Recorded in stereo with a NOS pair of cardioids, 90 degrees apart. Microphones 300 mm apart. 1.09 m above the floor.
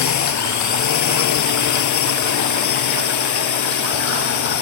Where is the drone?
70° left; by 4.6 s 75° left.